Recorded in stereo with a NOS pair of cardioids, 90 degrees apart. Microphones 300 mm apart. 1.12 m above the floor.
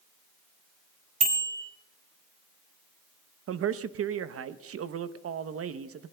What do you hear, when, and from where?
1.2 s a bicycle bell: 20° right, 4.5 m
3.5 s a man speaking: 50° right, 0.9 m